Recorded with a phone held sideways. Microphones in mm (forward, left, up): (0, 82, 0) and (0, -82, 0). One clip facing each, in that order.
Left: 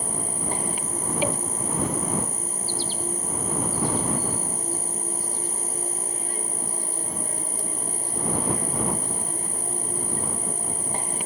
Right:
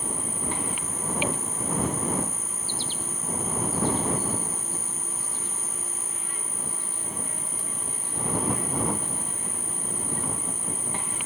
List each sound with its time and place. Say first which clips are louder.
0.0 s an insect: left 2 dB; 35° left (ahead or behind)